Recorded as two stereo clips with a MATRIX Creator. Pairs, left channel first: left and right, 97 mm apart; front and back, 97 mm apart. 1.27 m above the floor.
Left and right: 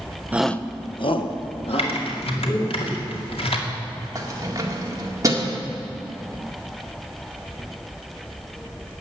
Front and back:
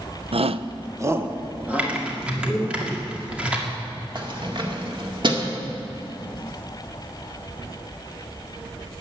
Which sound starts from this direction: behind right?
Keys jangling, at 4.2 s.